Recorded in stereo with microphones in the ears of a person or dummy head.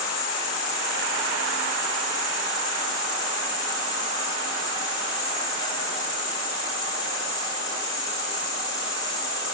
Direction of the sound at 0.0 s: 25° left (ahead or behind).